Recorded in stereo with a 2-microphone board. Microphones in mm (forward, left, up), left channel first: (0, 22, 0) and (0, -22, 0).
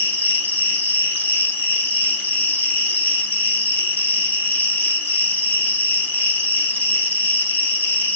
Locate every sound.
0.0 s an insect: 35° left (ahead or behind), 1.5 m